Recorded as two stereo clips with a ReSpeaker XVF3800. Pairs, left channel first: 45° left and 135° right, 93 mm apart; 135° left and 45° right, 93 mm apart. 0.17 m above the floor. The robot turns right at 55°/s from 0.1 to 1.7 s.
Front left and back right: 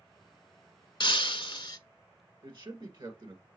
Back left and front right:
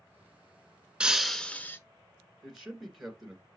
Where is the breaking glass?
35° left, 0.5 m; by 1.8 s 70° left, 0.5 m.